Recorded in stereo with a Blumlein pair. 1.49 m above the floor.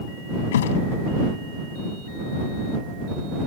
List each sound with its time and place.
0.5 s a thud: 60° left